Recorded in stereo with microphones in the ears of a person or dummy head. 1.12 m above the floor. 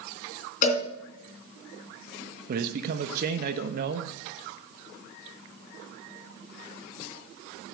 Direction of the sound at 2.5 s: 55° right (ahead or behind).